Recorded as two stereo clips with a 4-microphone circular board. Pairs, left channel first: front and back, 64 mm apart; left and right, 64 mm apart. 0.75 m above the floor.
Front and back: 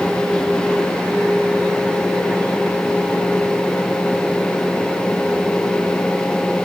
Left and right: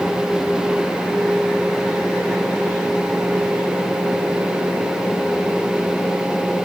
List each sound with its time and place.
Only background noise.